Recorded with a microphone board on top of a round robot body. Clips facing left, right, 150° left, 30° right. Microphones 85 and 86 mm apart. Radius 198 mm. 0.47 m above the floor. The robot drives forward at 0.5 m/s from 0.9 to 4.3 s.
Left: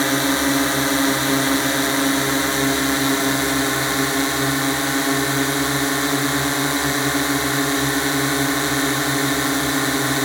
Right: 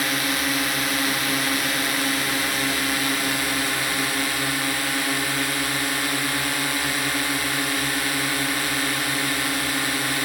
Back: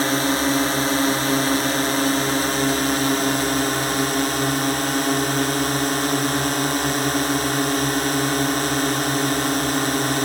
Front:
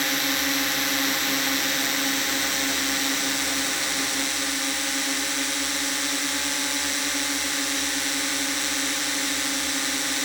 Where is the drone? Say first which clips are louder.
Left 6 dB, back 7 dB; 130° left; by 10.2 s 145° left.